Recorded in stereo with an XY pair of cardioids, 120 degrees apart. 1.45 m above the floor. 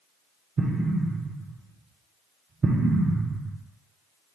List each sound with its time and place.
0.6 s an explosion: 25° right, 0.6 m